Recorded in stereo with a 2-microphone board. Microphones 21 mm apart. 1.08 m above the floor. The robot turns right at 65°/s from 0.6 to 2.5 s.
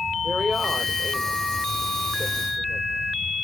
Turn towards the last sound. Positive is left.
turn(degrees=-85)